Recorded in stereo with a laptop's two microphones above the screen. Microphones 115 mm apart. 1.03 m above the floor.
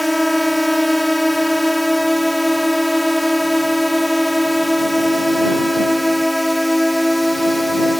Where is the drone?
Centre (ahead or behind).